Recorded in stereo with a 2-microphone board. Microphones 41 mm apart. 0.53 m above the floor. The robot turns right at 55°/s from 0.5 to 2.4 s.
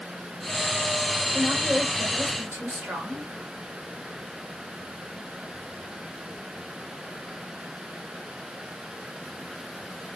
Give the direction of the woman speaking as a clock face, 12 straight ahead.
5 o'clock.